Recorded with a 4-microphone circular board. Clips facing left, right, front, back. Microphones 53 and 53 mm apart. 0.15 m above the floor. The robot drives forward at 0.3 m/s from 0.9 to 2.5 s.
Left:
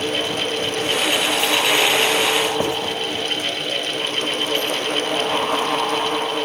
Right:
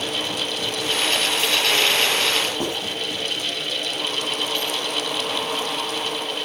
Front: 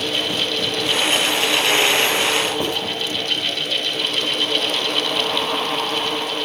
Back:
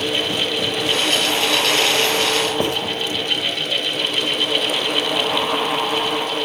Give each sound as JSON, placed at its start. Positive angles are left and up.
{"t": 2.6, "sound": "writing", "azimuth_deg": 155, "distance_m": 6.5}